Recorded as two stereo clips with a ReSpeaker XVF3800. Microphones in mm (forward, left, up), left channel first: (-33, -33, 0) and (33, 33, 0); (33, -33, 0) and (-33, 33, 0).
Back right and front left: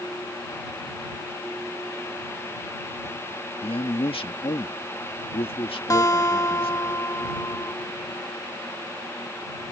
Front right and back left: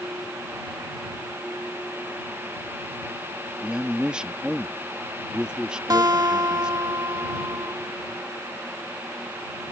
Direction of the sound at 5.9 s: 175° left.